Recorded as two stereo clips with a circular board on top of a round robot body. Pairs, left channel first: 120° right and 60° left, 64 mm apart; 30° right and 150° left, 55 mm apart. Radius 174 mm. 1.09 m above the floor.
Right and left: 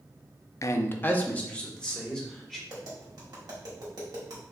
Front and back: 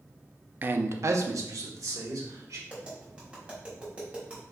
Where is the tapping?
80° left, 1.3 m.